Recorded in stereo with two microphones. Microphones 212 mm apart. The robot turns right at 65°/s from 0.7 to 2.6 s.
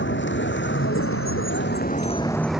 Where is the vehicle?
60° left; by 2.6 s 175° right.